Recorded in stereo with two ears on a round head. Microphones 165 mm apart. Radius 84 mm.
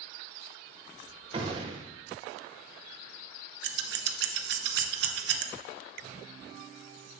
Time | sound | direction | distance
1.3 | a gunshot | 30° right (ahead or behind) | 0.7 m
3.6 | scissors | 60° right (ahead or behind) | 0.7 m